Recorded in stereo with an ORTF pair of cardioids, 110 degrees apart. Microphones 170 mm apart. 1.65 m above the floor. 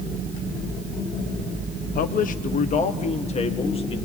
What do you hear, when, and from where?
1.9 s a man speaking: 60° left, 1.1 m; by 4.0 s 35° left, 2 m